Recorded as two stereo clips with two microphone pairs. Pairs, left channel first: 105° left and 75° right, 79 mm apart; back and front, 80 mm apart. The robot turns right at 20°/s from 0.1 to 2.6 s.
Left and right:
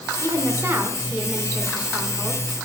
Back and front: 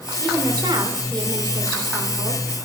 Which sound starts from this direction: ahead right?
A woman speaking, at 0.2 s.